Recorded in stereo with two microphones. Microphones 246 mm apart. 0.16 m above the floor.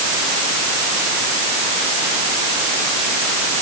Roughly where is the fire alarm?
I don't hear a fire alarm.